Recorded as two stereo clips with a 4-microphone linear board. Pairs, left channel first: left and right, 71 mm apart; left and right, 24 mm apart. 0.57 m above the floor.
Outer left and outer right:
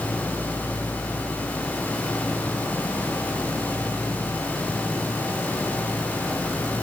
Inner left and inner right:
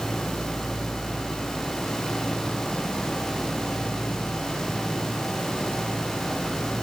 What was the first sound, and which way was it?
Only background noise.